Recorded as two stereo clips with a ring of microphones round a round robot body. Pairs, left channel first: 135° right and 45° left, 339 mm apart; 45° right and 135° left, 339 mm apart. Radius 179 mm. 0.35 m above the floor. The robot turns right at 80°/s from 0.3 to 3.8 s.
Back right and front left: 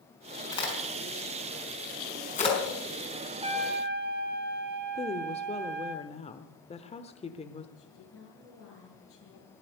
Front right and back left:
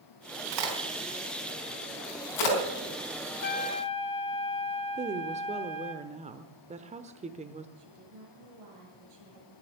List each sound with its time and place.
0.5 s a crack: 145° left, 4.5 m; by 2.6 s 50° right, 4.5 m
3.4 s a trumpet: 15° right, 1.5 m; by 6.0 s 15° left, 1.5 m
5.0 s a woman speaking: straight behind, 1.0 m
7.8 s a woman speaking: 170° left, 7.5 m